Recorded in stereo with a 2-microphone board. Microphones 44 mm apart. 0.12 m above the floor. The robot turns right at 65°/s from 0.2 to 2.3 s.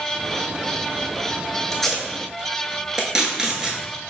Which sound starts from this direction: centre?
Tape being pulled, at 1.7 s.